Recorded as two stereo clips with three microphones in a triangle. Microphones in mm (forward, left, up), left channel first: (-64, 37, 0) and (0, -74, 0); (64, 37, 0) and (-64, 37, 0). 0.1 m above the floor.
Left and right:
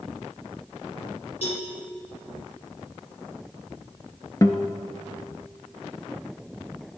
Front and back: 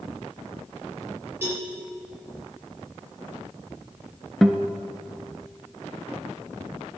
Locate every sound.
1.4 s a cowbell: 110° left, 2 m
4.4 s a guitar: 90° left, 0.5 m